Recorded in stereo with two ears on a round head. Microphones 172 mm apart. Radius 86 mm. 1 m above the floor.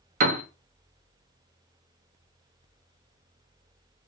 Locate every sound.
0.2 s a piano: 40° right (ahead or behind), 0.6 m